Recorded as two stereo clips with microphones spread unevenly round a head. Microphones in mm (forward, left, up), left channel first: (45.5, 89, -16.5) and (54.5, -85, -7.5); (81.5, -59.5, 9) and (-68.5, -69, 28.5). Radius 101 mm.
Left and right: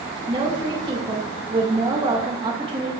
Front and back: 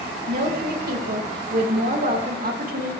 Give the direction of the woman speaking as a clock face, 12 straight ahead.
5 o'clock.